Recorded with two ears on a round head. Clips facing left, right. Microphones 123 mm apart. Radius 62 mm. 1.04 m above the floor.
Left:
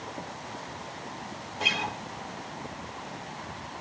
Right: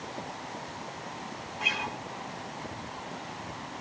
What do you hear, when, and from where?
1.6 s a guitar: 40° left (ahead or behind), 2 m